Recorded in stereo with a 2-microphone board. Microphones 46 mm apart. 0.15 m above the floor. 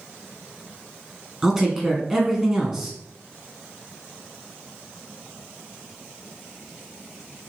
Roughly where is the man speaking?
Centre.